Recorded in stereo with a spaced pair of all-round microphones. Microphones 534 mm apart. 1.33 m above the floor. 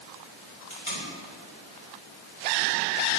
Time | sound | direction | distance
0.7 | tape being pulled | 75° left (ahead or behind) | 4 m